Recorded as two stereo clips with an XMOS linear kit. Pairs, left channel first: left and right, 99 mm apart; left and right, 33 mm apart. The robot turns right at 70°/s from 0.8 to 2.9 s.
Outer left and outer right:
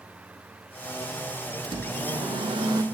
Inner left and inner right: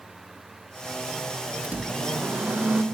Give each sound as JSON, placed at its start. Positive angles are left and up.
{"t": 1.6, "sound": "a microwave", "azimuth_deg": -130, "distance_m": 1.3}